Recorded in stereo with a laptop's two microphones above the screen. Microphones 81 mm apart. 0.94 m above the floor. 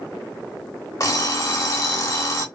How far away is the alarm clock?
About 0.8 m.